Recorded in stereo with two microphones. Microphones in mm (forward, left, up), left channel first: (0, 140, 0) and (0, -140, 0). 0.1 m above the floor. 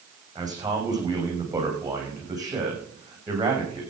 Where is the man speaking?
15° right (ahead or behind), 7.5 m.